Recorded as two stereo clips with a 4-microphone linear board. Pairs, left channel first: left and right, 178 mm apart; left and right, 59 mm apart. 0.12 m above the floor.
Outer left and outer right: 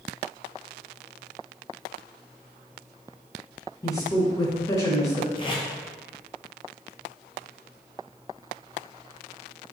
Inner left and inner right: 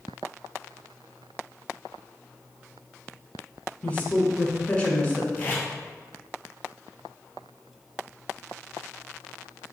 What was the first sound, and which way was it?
A woman speaking, 20° left (ahead or behind).